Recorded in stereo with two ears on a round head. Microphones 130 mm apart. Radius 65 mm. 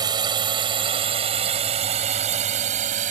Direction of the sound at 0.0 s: 30° right (ahead or behind).